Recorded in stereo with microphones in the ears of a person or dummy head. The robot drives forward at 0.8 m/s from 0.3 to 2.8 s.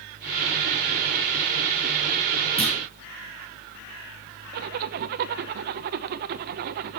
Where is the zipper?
50° right (ahead or behind), 0.8 m.